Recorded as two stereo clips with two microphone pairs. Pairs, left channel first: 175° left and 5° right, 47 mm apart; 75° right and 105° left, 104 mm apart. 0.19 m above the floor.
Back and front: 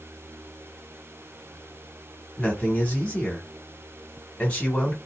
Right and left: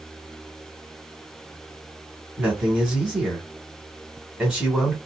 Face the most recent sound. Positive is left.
turn(degrees=170)